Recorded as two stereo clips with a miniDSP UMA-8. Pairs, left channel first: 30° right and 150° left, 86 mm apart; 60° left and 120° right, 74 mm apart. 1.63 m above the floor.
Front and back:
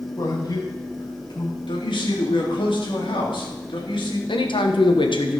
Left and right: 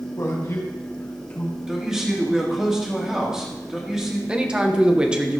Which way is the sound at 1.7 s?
35° right.